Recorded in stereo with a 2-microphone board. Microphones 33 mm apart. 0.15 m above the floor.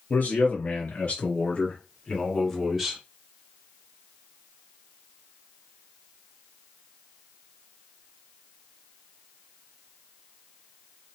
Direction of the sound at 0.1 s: 60° left (ahead or behind).